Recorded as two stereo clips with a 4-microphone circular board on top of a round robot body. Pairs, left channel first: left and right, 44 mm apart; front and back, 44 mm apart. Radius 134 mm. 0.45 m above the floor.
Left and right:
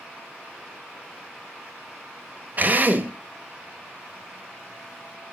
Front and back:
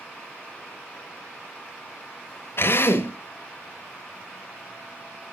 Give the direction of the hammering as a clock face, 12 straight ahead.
I don't hear hammering.